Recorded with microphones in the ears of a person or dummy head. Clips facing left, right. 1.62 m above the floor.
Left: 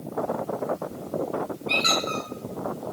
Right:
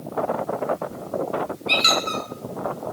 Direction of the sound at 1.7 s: 35° right (ahead or behind).